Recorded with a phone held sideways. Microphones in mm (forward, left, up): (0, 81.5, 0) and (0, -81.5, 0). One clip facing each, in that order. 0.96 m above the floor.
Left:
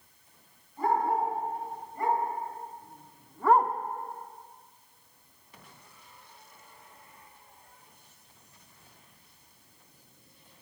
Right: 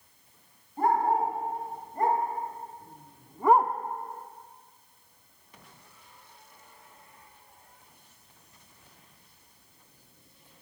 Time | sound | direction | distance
0.8 | a dog barking | 55° right (ahead or behind) | 3.5 m